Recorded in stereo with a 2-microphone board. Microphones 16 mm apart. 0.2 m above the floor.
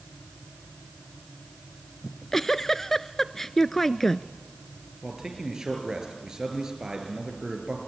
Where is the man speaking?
35° right (ahead or behind), 4.5 m.